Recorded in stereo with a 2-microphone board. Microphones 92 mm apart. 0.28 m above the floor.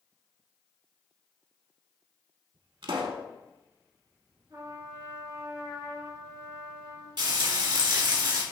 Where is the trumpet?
50° right (ahead or behind), 2.5 m.